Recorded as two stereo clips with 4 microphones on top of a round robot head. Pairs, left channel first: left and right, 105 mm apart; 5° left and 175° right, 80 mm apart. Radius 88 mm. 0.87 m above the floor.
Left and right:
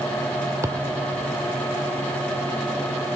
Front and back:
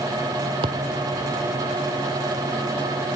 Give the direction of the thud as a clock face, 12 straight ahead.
5 o'clock.